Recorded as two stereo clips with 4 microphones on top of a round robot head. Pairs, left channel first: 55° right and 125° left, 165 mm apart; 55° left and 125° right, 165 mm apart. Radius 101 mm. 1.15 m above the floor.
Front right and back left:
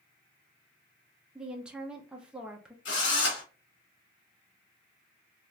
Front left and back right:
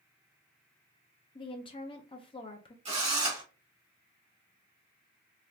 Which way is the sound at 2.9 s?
70° right.